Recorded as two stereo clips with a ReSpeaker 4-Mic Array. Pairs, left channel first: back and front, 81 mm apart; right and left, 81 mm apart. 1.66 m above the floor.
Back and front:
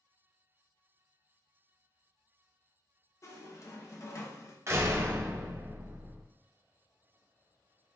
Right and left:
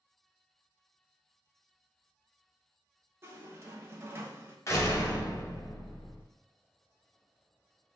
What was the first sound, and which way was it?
A squeak, 140° left.